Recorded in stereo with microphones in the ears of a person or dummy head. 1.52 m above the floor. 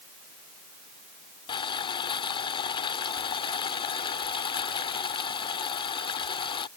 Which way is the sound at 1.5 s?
30° left (ahead or behind).